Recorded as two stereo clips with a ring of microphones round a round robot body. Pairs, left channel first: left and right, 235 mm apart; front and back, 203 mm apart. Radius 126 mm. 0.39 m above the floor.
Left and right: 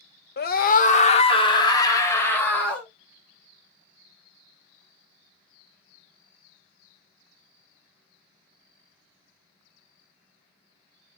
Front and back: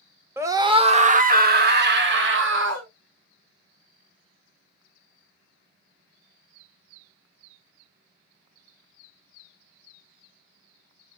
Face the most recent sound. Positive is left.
turn(degrees=175)